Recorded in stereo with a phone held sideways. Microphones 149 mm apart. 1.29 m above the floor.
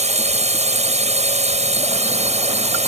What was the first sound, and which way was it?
A drone, 50° right (ahead or behind).